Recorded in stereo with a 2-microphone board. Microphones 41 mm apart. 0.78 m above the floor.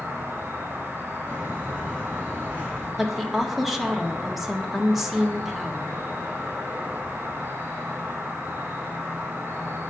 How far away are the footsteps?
About 4.5 m.